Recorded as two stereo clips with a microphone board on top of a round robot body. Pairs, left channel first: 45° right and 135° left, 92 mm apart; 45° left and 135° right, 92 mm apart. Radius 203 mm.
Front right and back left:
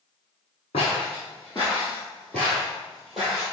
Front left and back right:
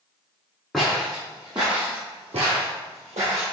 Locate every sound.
0.7 s footsteps: 40° right, 0.8 m; by 3.4 s 140° right, 1.6 m